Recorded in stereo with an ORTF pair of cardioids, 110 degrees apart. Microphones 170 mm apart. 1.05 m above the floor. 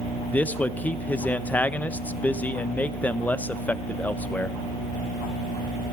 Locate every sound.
0.3 s a man speaking: 10° left, 0.5 m